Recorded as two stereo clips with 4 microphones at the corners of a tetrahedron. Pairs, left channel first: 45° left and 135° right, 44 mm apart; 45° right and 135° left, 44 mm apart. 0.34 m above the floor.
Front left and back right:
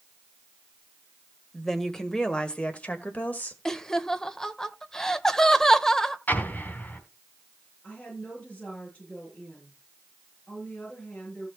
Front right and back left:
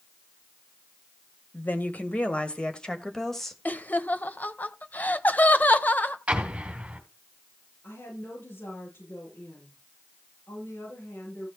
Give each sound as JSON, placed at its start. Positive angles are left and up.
{"t": 1.5, "sound": "a woman speaking", "azimuth_deg": -35, "distance_m": 1.8}
{"t": 3.6, "sound": "laughter", "azimuth_deg": -25, "distance_m": 1.1}
{"t": 6.3, "sound": "an explosion", "azimuth_deg": 80, "distance_m": 2.5}
{"t": 7.8, "sound": "a woman speaking", "azimuth_deg": -15, "distance_m": 8.5}